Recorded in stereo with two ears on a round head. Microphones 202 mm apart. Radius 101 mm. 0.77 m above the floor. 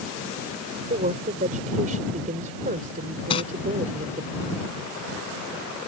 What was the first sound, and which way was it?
A woman speaking, 35° right (ahead or behind).